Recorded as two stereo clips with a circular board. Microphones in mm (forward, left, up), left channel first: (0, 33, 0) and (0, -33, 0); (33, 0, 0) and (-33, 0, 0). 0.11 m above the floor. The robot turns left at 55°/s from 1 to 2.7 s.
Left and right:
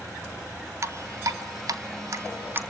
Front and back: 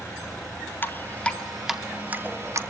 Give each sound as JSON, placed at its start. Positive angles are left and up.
{"t": 0.8, "sound": "dripping", "azimuth_deg": -55, "distance_m": 0.7}